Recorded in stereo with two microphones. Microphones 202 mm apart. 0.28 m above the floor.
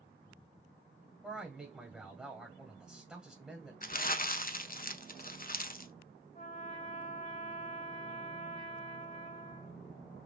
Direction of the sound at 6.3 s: 40° left (ahead or behind).